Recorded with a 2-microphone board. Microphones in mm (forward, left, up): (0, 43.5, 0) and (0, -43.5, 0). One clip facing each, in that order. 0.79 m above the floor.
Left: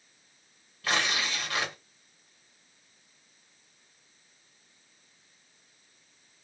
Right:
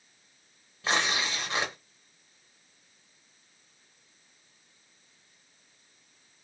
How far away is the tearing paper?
About 1.1 m.